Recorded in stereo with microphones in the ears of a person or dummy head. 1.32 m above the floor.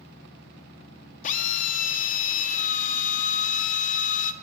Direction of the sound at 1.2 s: 45° left (ahead or behind).